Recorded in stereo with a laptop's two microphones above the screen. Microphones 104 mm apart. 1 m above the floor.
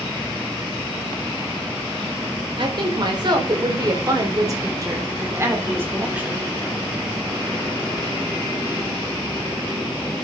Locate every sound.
2.6 s a woman speaking: 50° right (ahead or behind), 3.5 m; by 6.5 s 15° right (ahead or behind), 3 m